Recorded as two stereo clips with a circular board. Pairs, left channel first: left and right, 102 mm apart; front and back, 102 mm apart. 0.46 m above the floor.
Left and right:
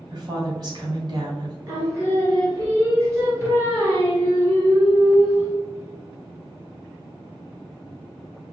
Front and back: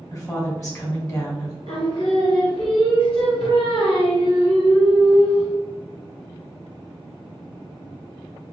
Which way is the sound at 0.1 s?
50° right.